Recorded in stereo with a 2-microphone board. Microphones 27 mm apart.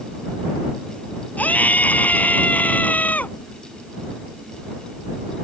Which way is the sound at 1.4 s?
75° left (ahead or behind).